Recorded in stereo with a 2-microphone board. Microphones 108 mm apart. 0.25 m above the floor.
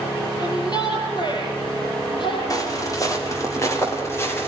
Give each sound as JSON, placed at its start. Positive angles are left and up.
{"t": 0.4, "sound": "a shout", "side_deg": 40, "distance_m": 7.0}
{"t": 2.5, "sound": "footsteps", "side_deg": 35, "distance_m": 5.5}